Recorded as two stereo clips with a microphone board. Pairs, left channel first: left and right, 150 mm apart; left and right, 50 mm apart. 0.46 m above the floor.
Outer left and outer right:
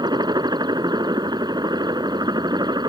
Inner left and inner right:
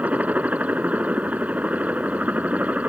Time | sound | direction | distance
0.0 | a helicopter | 30° right (ahead or behind) | ?